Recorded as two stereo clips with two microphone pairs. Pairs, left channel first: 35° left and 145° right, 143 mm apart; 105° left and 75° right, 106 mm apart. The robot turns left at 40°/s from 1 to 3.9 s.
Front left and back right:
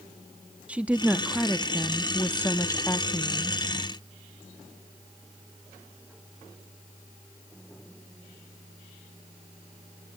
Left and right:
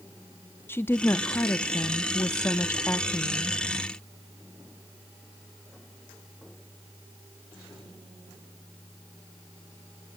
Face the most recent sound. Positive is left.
turn(degrees=30)